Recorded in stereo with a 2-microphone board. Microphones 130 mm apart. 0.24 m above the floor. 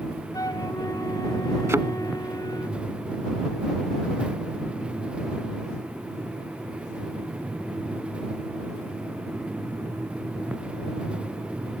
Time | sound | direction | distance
0.3 | a flute | 25° left (ahead or behind) | ?
1.7 | a thud | 20° right (ahead or behind) | ?